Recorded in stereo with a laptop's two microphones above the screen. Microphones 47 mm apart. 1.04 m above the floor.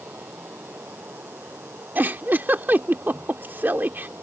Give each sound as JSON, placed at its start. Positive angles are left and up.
{"t": 0.0, "sound": "running water", "side_deg": -50}
{"t": 1.9, "sound": "a giggle", "side_deg": -40}